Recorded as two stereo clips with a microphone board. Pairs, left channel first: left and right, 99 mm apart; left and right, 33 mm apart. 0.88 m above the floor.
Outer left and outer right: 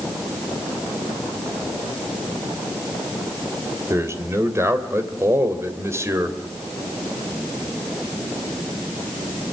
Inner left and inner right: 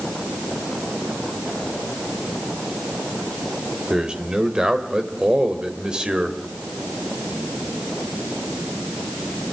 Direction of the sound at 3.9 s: 25° right (ahead or behind).